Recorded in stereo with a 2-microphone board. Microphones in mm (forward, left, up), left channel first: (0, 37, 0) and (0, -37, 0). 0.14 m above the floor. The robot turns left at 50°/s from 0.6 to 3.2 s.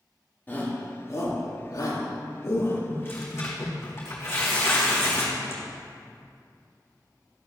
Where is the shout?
25° left (ahead or behind), 3 m; by 2.8 s 35° left (ahead or behind), 3 m.